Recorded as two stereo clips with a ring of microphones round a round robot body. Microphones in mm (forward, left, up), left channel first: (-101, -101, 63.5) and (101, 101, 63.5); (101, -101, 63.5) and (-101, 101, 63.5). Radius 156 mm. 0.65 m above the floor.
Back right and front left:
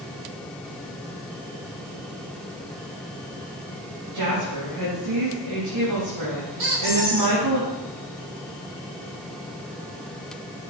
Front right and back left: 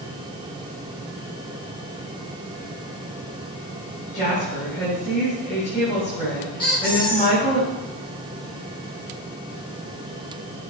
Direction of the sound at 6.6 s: 30° left.